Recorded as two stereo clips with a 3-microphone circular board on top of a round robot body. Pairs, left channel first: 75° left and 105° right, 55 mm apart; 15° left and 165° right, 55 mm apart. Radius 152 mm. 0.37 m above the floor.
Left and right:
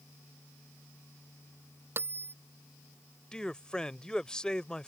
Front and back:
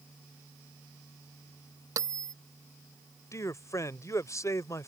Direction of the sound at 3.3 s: Straight ahead.